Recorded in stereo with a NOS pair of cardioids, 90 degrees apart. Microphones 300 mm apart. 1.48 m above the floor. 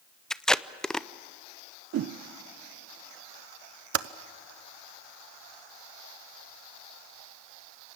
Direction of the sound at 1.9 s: 60° right.